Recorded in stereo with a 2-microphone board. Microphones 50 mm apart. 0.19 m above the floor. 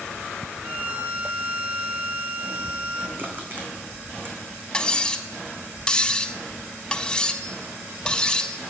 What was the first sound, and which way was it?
A violin, 35° right (ahead or behind).